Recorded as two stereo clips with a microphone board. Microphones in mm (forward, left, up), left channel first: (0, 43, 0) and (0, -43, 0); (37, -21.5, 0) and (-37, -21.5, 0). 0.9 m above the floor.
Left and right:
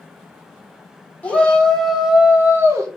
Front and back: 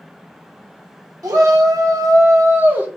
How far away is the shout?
About 1.5 m.